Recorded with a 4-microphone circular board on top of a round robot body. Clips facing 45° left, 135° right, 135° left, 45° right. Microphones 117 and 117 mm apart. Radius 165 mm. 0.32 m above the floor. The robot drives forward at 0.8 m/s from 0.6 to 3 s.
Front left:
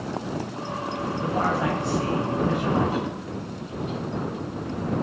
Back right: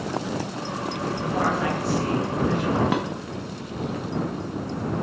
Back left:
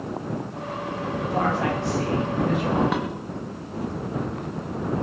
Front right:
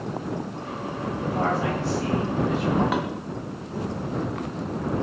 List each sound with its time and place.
1.2 s a man speaking: 110° left, 9 m; by 2.8 s 115° left, 9.5 m
2.9 s dishes clattering: 135° right, 2.5 m